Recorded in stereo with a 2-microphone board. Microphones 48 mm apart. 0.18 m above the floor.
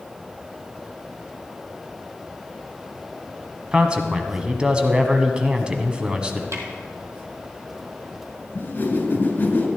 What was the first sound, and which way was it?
A man speaking, 20° right (ahead or behind).